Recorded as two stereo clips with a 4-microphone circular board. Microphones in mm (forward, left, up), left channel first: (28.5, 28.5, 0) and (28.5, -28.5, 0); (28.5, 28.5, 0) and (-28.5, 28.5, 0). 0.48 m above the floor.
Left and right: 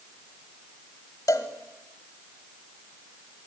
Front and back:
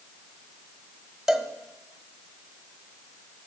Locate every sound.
1.3 s a cowbell: 95° left, 1.3 m